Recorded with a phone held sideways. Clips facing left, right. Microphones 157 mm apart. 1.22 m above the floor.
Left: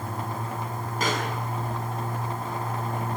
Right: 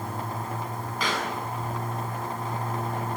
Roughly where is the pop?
Left.